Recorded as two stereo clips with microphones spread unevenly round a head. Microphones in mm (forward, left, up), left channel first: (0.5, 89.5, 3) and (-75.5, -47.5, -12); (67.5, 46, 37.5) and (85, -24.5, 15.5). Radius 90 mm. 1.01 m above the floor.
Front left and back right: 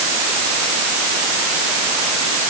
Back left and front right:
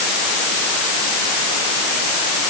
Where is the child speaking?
No child speaking in this recording.